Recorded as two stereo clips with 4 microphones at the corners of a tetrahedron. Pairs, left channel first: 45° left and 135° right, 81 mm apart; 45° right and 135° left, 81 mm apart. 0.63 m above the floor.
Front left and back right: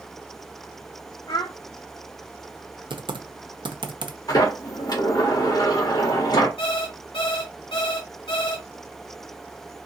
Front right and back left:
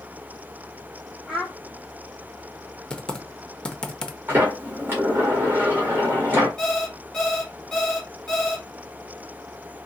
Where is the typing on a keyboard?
125° right, 0.5 m.